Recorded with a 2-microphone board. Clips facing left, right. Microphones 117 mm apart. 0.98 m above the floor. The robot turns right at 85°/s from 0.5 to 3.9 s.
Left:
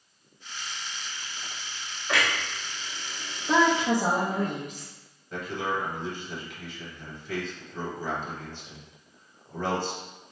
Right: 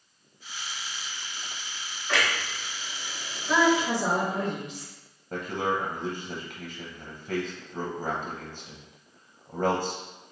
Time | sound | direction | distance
2.1 | a clunk | 15° left (ahead or behind) | 1.5 m
3.5 | a woman speaking | 35° left | 1.1 m
5.3 | a man speaking | 40° right (ahead or behind) | 0.7 m